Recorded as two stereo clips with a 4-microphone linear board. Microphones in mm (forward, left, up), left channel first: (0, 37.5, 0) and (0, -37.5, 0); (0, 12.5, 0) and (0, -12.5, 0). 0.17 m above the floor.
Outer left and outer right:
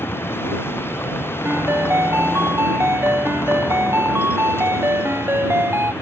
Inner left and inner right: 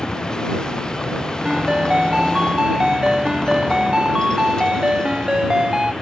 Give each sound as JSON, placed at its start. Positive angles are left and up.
{"t": 0.0, "sound": "a vehicle", "side_deg": 30}
{"t": 1.4, "sound": "a ringtone", "side_deg": -30}